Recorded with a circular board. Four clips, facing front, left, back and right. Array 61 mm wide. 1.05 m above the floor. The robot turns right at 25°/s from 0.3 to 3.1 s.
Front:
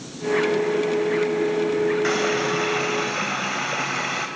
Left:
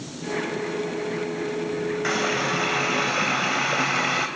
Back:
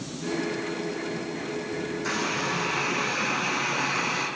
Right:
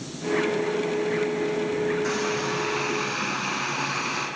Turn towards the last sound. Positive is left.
turn(degrees=60)